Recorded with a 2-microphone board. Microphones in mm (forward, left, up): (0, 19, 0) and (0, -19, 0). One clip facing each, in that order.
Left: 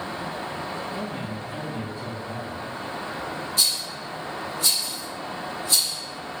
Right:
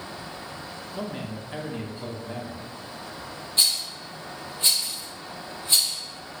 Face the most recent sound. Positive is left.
turn(degrees=-35)  # may be behind; listen again after turning